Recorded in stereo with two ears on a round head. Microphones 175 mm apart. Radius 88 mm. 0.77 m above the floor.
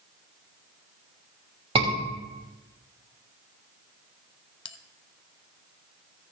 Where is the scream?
30° right (ahead or behind), 5.5 m.